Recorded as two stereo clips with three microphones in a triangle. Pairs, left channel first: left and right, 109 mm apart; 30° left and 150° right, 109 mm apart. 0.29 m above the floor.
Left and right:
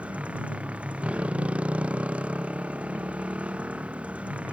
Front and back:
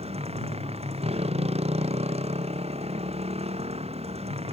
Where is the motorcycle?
170° right.